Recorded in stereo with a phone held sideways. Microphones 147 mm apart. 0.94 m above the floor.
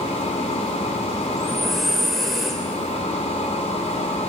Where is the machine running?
50° left (ahead or behind), 3 m.